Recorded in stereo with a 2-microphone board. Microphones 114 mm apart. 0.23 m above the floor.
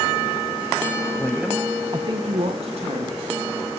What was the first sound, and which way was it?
A woman speaking, 15° left (ahead or behind).